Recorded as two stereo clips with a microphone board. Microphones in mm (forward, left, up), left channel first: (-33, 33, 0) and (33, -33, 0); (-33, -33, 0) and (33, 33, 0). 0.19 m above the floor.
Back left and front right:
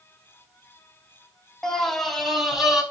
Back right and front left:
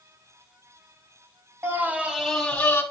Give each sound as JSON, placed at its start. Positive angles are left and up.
{"t": 1.6, "sound": "a scream", "azimuth_deg": 55, "distance_m": 1.1}